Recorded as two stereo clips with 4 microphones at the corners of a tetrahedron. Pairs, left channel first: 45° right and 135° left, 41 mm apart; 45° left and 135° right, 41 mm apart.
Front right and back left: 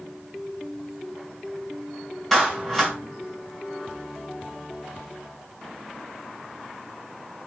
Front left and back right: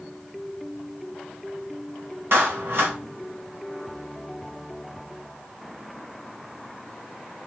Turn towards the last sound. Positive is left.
turn(degrees=-130)